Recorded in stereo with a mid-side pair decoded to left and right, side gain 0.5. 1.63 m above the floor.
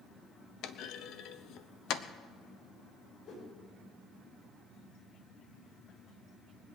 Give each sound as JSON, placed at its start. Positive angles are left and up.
{"t": 0.6, "sound": "a clunk", "azimuth_deg": 70, "distance_m": 0.8}
{"t": 3.2, "sound": "a whoosh", "azimuth_deg": 60, "distance_m": 4.5}